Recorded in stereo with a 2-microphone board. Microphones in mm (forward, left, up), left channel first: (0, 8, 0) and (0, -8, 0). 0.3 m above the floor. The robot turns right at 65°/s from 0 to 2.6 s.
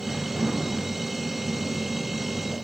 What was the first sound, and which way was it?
Only background noise.